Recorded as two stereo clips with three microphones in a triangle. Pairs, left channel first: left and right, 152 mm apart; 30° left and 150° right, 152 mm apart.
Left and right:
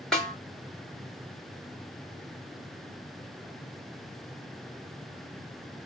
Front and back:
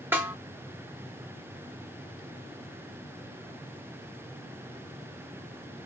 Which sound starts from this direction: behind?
A snare drum, at 0.1 s.